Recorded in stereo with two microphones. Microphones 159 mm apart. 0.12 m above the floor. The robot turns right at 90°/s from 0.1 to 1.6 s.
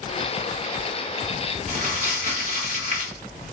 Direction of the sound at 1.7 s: 50° right (ahead or behind).